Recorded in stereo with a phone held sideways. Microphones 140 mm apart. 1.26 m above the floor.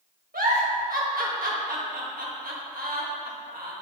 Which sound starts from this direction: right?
A giggle, at 0.3 s.